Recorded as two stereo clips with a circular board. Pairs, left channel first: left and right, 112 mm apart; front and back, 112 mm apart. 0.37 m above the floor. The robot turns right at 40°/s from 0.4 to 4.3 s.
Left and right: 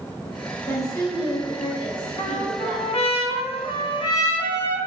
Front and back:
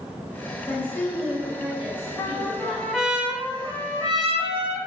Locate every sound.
0.7 s a woman speaking: 50° left, 1.7 m; by 3.0 s 145° left, 1.7 m
2.2 s a trumpet: 60° left, 0.7 m; by 4.8 s 145° left, 0.7 m